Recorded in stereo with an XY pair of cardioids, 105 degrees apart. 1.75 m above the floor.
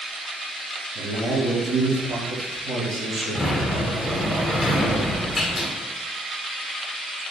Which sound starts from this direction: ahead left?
A sliding door, at 3.4 s.